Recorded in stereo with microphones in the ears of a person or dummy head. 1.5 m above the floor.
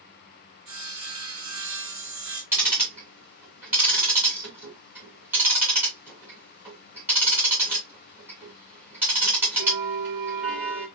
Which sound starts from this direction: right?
Sawing, at 0.7 s.